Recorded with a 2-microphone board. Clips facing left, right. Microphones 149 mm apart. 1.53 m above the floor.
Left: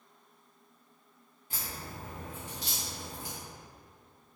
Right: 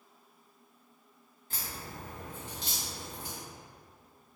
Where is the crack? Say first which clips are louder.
Left 1 dB; 10° left (ahead or behind), 0.9 m.